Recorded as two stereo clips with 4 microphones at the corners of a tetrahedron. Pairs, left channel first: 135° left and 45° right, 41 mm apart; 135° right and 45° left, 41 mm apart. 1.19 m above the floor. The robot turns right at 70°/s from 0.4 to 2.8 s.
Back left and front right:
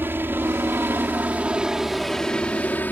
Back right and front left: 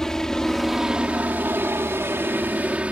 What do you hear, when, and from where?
0.0 s a helicopter: 60° right; by 2.9 s 100° left